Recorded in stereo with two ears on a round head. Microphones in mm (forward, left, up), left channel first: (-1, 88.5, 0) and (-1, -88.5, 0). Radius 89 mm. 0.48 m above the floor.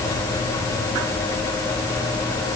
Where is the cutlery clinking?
I don't hear cutlery clinking.